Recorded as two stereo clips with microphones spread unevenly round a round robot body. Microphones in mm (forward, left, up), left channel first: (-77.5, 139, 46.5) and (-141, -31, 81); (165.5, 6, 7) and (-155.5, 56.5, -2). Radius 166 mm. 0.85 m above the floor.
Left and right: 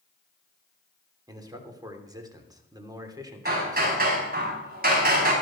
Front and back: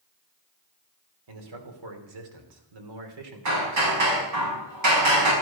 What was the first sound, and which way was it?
A man speaking, 175° left.